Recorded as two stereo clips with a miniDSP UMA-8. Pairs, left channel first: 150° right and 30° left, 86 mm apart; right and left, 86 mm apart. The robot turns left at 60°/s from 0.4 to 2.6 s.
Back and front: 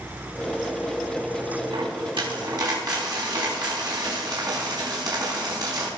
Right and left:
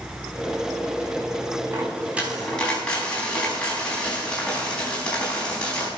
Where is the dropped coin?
40° left, 4.5 m; by 5.9 s 10° right, 4.5 m.